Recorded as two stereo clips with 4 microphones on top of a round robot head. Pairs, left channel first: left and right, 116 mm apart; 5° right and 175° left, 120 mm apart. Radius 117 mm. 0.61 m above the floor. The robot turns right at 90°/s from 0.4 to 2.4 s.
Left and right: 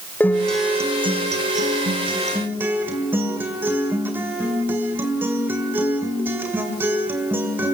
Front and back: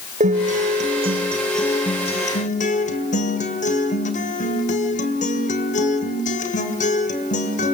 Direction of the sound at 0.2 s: 165° left.